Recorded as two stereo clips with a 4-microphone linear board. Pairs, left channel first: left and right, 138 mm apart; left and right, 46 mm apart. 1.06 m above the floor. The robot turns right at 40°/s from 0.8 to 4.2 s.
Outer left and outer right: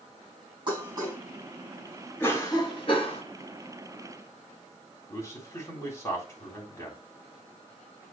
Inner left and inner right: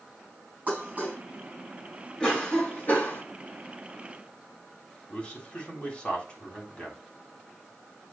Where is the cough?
20° left, 2.5 m; by 3.2 s 60° left, 2.5 m.